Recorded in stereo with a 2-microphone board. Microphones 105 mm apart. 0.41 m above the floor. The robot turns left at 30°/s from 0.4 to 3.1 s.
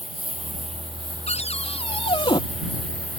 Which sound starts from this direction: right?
A lawn mower, at 0.0 s.